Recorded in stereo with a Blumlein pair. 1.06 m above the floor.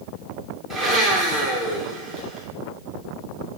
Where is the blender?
15° right, 3 m.